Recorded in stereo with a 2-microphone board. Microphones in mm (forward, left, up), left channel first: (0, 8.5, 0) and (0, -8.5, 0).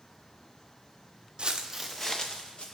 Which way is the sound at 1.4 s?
60° right (ahead or behind).